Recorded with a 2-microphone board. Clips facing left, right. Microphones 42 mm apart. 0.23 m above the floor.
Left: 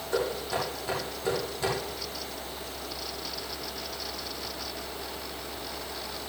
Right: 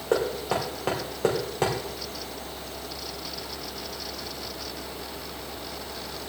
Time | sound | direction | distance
0.1 | knocking | 75° right (ahead or behind) | 4.5 m